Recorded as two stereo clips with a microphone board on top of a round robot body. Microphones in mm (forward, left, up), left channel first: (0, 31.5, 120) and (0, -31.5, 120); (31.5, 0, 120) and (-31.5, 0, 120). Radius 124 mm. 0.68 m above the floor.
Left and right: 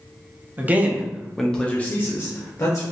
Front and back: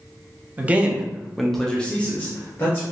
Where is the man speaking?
130° right, 0.8 m; by 2.8 s 55° left, 1.1 m.